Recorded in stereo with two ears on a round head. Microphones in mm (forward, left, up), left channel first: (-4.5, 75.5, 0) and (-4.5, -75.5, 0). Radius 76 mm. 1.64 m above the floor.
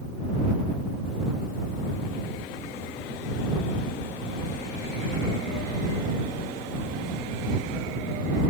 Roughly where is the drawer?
I don't hear a drawer.